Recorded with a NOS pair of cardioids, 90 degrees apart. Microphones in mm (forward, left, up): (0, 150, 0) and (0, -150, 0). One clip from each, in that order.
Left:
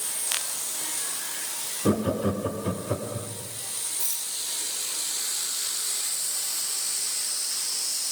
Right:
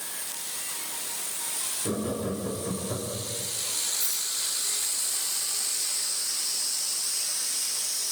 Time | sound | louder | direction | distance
1.9 | laughter | left 7 dB | 60° left | 2.5 m
4.0 | a rattle | right 2 dB | 30° left | 5 m